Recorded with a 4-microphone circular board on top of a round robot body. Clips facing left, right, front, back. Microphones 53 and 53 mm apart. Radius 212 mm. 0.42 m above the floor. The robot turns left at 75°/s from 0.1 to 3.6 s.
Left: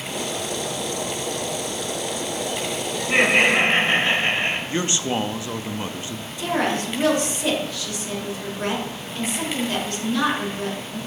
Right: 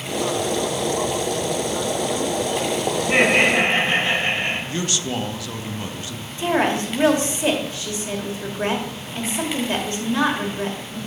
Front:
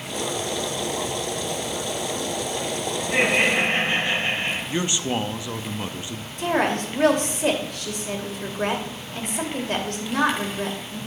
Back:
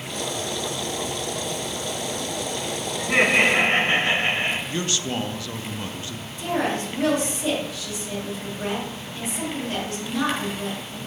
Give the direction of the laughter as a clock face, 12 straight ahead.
5 o'clock.